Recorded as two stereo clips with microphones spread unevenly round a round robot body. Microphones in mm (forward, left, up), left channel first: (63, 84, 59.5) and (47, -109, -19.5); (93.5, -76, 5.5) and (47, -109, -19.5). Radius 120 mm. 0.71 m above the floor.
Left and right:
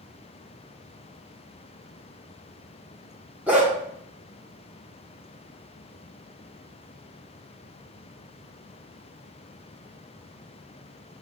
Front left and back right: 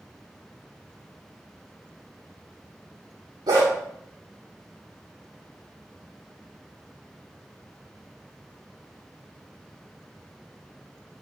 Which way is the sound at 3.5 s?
Straight behind.